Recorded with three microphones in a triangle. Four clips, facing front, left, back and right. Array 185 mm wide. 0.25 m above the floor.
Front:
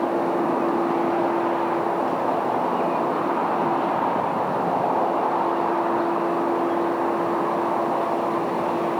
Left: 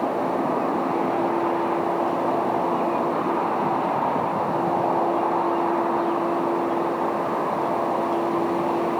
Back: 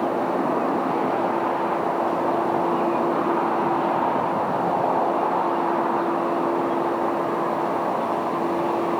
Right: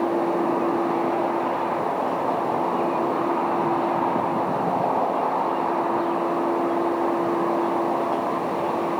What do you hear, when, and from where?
Only background noise.